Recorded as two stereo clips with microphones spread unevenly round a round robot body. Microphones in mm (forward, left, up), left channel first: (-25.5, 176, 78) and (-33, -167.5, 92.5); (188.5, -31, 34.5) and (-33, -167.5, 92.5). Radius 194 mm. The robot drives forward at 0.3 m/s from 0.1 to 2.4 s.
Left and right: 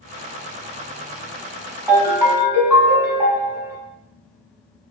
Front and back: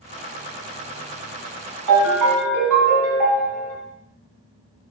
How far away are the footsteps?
I don't hear footsteps.